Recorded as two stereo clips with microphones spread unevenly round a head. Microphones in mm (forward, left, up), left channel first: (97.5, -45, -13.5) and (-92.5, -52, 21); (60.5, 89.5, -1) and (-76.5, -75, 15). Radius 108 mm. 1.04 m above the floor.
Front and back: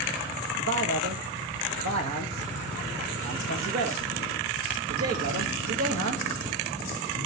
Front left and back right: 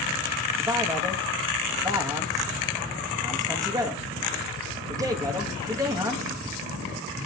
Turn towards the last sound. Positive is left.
turn(degrees=155)